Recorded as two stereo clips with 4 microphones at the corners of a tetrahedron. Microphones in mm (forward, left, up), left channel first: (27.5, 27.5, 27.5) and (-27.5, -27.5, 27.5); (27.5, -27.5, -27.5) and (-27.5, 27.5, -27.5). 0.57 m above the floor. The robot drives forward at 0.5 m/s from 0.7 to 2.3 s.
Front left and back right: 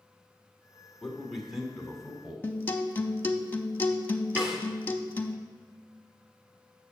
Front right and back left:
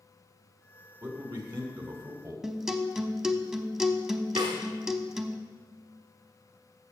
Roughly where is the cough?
No cough in this recording.